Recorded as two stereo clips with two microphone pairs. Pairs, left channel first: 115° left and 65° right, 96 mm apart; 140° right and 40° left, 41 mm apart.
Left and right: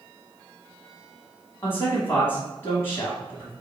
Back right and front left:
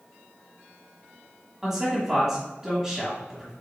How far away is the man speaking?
About 1.3 m.